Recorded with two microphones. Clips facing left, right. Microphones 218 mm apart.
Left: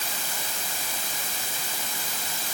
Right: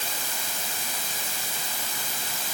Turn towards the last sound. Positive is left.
No sound to turn to.